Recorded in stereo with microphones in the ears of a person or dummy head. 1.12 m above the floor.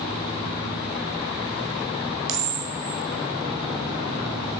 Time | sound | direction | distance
2.3 | a camera shutter | 50° right (ahead or behind) | 3 m